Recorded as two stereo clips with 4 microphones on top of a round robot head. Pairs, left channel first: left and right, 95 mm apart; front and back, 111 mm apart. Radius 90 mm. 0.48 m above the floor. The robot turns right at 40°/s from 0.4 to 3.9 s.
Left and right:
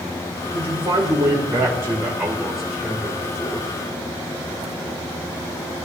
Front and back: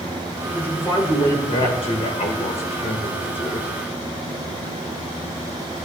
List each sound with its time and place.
0.5 s a man speaking: 80° right, 2.5 m; by 3.7 s 45° left, 2.5 m